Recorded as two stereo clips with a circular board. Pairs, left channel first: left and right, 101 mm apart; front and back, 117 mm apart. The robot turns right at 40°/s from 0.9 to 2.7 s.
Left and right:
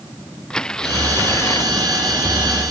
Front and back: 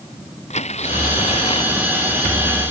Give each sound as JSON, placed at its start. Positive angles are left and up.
{"t": 0.5, "sound": "tearing paper", "azimuth_deg": 10}